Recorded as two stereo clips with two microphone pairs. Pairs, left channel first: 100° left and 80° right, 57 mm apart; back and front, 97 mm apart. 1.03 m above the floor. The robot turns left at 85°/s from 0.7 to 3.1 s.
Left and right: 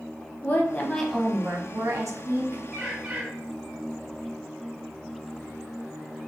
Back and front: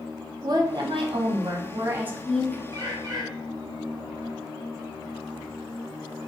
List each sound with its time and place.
0.4 s a woman speaking: 45° left, 0.6 m; by 2.6 s 120° right, 0.6 m
2.7 s a bird: 20° left, 1.2 m; by 3.3 s 10° right, 1.2 m